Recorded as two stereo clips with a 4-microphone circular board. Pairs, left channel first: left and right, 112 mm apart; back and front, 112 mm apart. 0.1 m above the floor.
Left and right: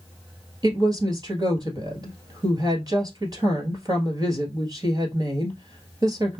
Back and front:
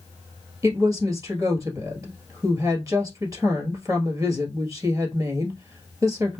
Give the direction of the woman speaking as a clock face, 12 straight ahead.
2 o'clock.